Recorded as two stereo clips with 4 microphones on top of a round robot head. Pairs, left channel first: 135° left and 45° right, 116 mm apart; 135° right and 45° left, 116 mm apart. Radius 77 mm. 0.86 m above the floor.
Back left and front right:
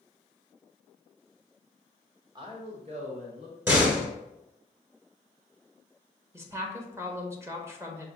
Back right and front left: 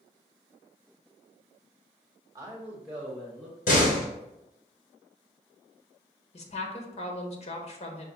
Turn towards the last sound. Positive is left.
turn(degrees=-110)